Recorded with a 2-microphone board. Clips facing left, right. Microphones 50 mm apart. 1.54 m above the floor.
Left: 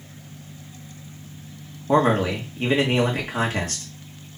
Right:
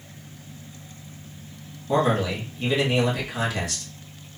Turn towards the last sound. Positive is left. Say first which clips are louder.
# left 3 dB
turn(degrees=35)  # may be behind; listen again after turning